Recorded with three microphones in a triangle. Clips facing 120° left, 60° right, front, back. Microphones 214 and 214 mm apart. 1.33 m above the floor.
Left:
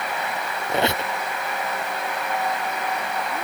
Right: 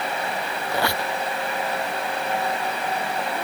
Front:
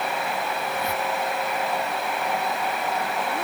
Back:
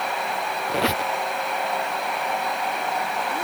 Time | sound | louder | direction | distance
0.7 | a squeak | left 3 dB, back 7 dB | 170° right | ?